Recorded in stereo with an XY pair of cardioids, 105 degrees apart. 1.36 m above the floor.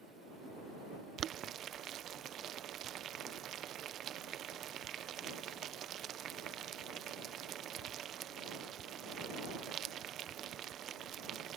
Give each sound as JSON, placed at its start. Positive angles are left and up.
{"t": 1.2, "sound": "boiling", "azimuth_deg": -65}